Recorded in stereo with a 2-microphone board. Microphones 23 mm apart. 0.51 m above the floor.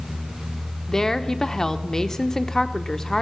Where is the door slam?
No door slam in this recording.